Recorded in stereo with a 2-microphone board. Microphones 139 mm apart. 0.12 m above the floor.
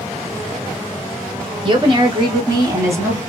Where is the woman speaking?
40° right (ahead or behind), 1.4 m; by 3.2 s 15° right (ahead or behind), 1.4 m.